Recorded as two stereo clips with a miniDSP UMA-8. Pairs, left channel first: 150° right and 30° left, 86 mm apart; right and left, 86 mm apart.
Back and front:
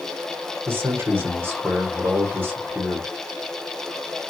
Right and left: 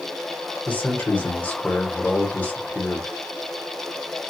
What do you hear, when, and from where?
0.7 s a man speaking: 25° right, 1.3 m